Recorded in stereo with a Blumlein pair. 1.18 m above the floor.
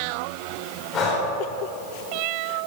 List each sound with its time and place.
0.9 s breathing: 25° left, 4 m